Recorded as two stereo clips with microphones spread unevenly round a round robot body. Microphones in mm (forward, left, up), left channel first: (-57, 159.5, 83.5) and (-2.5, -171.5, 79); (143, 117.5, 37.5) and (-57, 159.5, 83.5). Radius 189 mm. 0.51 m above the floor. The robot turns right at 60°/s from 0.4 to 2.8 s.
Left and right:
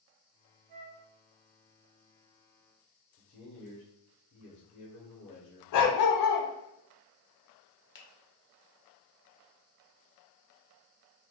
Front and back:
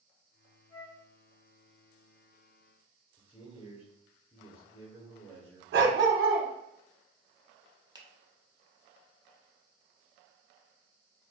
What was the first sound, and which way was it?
A flute, 110° right.